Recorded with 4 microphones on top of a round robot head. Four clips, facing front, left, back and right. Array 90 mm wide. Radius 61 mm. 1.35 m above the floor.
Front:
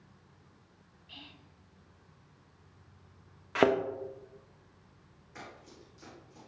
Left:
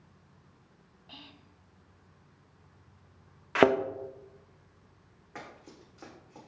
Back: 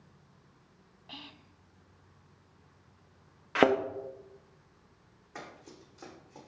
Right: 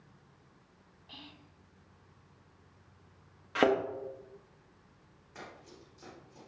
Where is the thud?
110° left, 0.6 m.